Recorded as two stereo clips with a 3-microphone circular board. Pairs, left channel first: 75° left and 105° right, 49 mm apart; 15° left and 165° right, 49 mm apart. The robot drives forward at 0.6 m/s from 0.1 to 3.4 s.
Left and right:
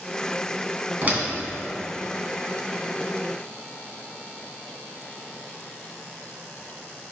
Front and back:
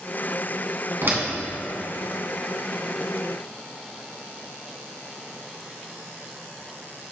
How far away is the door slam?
About 1.7 m.